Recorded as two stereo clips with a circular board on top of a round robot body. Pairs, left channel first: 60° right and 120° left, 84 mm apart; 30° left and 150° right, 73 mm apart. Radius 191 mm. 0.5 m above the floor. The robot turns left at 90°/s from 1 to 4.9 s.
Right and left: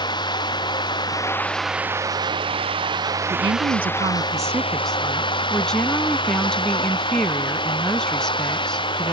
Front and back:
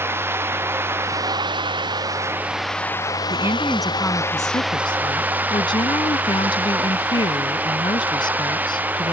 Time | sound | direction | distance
0.0 | running water | 90° right | ?
3.3 | a woman speaking | 165° left | ?